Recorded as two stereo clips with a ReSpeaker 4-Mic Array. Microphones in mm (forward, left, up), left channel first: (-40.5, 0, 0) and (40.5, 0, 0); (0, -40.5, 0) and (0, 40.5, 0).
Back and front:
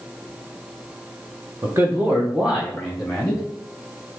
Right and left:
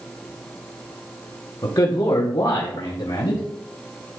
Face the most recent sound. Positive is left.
turn(degrees=-100)